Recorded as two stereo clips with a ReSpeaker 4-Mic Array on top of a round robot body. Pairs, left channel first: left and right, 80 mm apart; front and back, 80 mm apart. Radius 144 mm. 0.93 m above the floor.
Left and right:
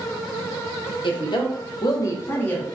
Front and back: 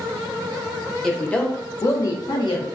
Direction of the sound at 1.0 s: 85° left.